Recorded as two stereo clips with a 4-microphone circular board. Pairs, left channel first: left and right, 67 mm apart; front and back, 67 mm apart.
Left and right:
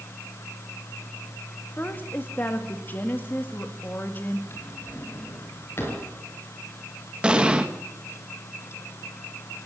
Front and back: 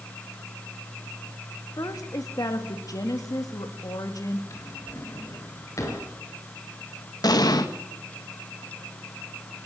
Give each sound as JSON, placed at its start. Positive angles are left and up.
{"t": 1.8, "sound": "a woman speaking", "azimuth_deg": 30, "distance_m": 2.0}
{"t": 4.5, "sound": "a drawer", "azimuth_deg": 40, "distance_m": 5.0}
{"t": 7.2, "sound": "an explosion", "azimuth_deg": -15, "distance_m": 1.6}